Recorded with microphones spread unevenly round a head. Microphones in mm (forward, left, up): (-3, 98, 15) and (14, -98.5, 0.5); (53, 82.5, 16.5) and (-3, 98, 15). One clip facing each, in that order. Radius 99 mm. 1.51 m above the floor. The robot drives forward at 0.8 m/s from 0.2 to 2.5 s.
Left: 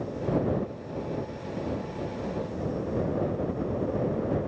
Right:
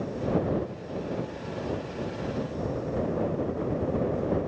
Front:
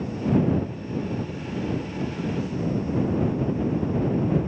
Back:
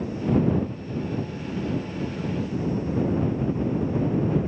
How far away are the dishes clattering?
I don't hear dishes clattering.